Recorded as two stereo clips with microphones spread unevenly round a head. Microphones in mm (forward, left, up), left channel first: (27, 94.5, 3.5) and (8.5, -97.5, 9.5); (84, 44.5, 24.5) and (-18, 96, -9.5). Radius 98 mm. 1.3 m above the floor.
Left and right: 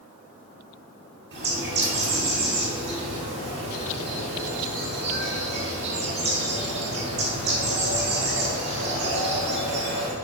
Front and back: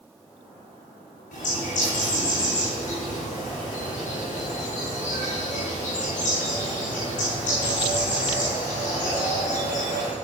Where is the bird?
60° right, 6.5 m.